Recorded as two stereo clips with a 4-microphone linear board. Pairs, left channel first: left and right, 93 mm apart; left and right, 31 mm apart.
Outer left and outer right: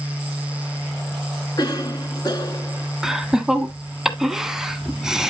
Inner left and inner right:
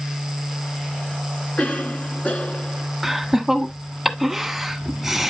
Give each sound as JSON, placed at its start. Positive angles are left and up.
{"t": 1.6, "sound": "a cough", "side_deg": 45, "distance_m": 2.5}
{"t": 3.0, "sound": "laughter", "side_deg": -5, "distance_m": 1.1}